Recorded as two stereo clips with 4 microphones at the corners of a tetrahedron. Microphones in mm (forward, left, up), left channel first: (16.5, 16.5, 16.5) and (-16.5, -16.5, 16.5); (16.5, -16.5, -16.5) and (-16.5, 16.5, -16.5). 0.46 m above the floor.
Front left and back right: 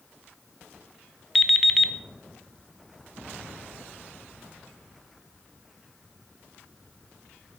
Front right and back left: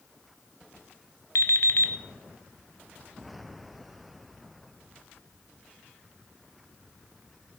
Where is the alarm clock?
40° right, 0.9 m.